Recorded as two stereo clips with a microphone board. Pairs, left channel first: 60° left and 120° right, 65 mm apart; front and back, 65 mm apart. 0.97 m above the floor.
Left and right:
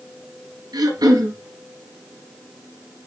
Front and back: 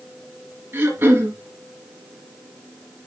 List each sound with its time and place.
0.7 s throat clearing: 130° right, 4 m